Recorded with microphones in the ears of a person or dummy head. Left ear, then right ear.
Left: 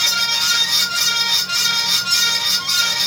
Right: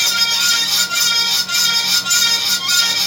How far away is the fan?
About 1.6 m.